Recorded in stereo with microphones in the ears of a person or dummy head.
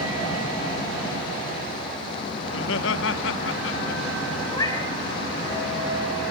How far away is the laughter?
About 1.2 m.